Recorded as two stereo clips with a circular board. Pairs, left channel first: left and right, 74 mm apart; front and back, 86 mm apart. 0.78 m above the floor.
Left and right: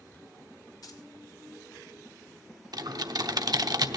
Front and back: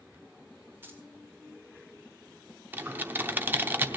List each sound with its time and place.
0.8 s keys jangling: 115° left, 2 m
2.7 s typing on a keyboard: 115° right, 0.8 m